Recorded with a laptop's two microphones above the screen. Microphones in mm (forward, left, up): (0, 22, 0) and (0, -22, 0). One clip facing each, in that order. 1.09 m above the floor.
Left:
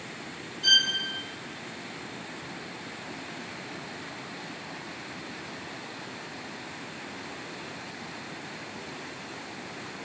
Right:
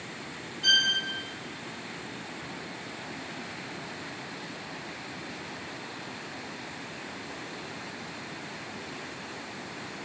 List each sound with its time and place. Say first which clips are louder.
0.6 s a violin: left 1 dB; 5° right (ahead or behind), 0.5 m